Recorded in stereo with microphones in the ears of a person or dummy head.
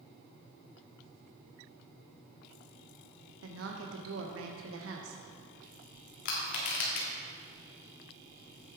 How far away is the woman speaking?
About 0.8 m.